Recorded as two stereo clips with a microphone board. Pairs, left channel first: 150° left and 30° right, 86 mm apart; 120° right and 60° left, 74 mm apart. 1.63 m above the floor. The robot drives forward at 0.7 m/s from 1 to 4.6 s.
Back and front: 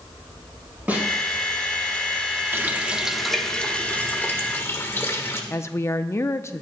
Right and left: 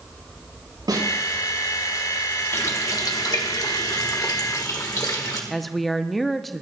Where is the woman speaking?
150° left, 0.6 m.